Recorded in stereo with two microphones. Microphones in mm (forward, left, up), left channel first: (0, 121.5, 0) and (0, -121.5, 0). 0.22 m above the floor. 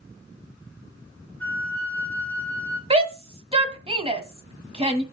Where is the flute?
5° left (ahead or behind), 1.6 m.